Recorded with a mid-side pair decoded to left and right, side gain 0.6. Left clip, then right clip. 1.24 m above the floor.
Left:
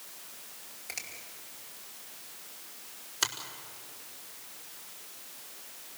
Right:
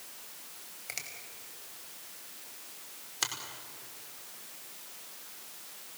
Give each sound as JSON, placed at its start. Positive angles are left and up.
{"t": 0.9, "sound": "a finger snap", "azimuth_deg": -15, "distance_m": 5.0}
{"t": 3.2, "sound": "a finger snap", "azimuth_deg": 5, "distance_m": 4.5}